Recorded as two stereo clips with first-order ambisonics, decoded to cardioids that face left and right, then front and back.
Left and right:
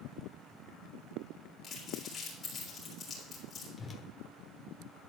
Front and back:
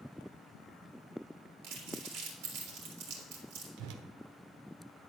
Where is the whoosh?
165° left, 1.1 m.